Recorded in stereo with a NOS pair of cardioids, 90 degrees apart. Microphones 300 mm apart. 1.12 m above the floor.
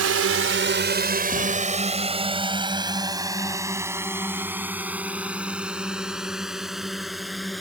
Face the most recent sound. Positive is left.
turn(degrees=0)